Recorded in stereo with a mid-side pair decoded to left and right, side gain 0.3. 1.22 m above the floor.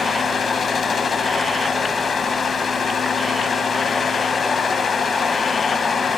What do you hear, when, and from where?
0.0 s a fan: 60° left, 1.0 m